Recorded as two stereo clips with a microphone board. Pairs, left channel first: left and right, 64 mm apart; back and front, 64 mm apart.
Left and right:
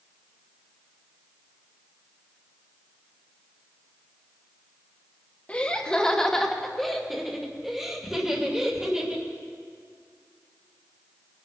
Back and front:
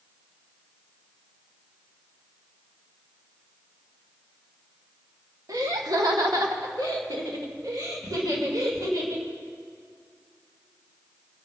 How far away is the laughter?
About 1.3 m.